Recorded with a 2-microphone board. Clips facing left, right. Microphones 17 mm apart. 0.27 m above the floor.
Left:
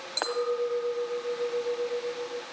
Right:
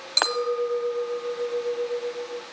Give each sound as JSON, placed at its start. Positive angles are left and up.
{"t": 0.2, "sound": "a clink", "side_deg": -50, "distance_m": 0.8}